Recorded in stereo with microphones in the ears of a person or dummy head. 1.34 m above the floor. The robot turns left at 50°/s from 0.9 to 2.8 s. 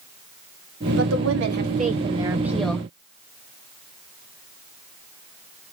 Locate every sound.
1.0 s a woman speaking: 95° right, 1.6 m; by 2.9 s 175° left, 1.6 m